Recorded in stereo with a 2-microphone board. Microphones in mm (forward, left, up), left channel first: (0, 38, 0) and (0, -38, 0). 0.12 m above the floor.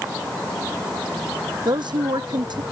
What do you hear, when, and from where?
1.6 s a woman speaking: 75° right (ahead or behind)